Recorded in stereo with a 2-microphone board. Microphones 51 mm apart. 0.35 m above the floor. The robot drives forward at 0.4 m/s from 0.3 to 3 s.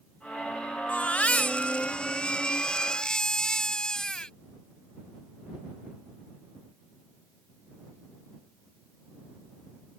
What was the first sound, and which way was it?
A baby crying, 30° left (ahead or behind).